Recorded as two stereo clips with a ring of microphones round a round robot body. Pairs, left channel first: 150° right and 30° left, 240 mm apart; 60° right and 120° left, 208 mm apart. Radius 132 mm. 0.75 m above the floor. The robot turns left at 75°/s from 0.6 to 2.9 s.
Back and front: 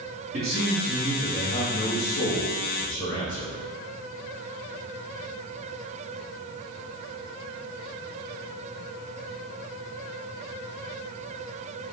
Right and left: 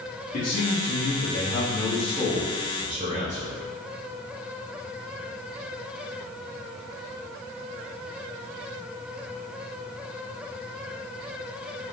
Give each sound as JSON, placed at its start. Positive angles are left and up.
{"t": 0.3, "sound": "a man speaking", "azimuth_deg": -25, "distance_m": 1.2}